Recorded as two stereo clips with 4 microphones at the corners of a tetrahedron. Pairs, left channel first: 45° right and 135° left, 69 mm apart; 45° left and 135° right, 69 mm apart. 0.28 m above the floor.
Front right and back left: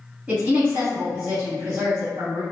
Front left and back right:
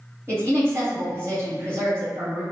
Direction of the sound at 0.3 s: 165° right.